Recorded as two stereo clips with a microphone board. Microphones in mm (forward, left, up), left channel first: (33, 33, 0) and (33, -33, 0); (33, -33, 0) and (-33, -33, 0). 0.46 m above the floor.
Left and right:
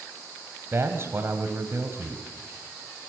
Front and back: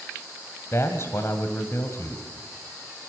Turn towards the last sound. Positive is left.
turn(degrees=-40)